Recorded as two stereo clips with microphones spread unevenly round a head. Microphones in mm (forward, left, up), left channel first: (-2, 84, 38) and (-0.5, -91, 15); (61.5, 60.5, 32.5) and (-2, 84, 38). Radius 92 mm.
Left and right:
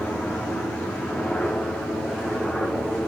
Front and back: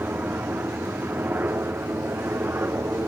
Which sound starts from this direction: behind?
A helicopter, at 0.0 s.